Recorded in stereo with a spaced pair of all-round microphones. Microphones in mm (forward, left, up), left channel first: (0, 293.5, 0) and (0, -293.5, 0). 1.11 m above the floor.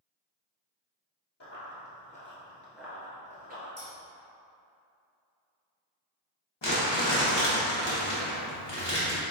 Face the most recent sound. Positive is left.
turn(degrees=45)  # may be behind; listen again after turning